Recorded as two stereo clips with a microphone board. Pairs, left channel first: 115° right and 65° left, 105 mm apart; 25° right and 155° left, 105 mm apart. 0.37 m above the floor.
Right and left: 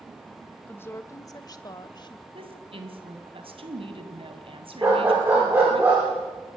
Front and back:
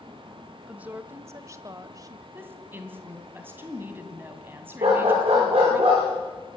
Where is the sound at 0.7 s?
145° right, 0.8 m; by 2.2 s 150° right, 1.7 m.